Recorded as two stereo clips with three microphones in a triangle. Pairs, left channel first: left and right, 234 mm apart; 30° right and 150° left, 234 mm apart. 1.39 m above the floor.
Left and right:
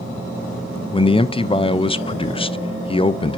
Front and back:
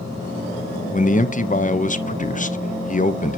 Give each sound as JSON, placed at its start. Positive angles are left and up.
{"t": 0.9, "sound": "a man speaking", "azimuth_deg": 20, "distance_m": 0.6}